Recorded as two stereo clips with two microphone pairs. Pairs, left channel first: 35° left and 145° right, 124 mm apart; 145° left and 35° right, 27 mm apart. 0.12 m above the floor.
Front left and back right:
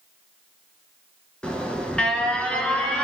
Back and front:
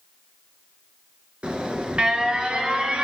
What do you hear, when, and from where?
1.4 s an alarm: 40° right, 1.8 m